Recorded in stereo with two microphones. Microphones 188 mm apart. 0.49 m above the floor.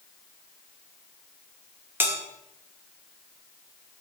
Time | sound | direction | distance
2.0 | a bell | 10° right (ahead or behind) | 1.6 m